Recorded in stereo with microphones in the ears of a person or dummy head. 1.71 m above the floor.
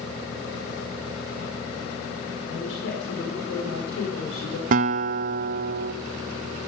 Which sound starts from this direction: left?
A woman speaking, at 2.5 s.